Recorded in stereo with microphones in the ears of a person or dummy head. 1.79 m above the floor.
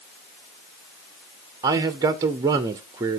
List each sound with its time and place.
1.6 s a man speaking: 20° right (ahead or behind), 0.6 m